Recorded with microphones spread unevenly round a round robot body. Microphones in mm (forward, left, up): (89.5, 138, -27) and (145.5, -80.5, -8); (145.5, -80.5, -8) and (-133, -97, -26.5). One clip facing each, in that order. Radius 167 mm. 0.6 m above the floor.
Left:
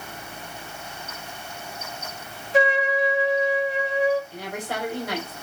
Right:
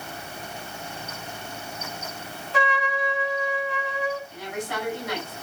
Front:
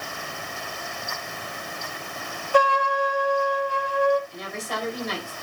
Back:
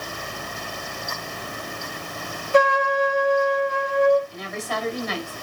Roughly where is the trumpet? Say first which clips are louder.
Left 6 dB, back 3 dB; right.